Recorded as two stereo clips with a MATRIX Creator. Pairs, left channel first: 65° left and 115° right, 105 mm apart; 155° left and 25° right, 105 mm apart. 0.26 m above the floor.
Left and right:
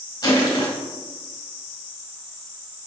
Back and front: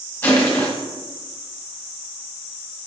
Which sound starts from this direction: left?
Crushing, at 0.2 s.